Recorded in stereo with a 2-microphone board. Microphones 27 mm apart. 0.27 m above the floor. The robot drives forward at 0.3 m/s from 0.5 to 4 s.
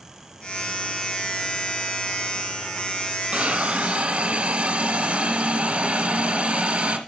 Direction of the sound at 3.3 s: 60° right (ahead or behind).